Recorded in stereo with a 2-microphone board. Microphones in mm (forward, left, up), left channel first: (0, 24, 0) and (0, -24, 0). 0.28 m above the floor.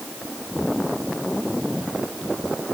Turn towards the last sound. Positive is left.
No sound to turn to.